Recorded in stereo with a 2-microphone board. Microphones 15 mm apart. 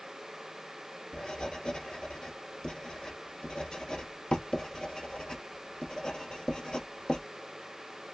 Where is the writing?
70° left (ahead or behind), 1.8 m.